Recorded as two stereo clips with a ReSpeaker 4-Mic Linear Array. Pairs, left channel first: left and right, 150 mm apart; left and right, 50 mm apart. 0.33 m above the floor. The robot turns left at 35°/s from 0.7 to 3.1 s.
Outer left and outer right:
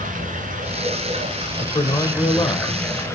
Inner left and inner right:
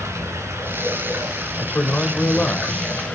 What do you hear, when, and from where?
0.0 s running water: 115° right, 3 m; by 3.1 s 160° left, 3 m
1.6 s a man speaking: 120° left, 1.3 m; by 2.8 s 75° left, 1.3 m